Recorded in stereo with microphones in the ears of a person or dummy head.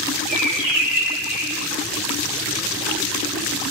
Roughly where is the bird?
Centre.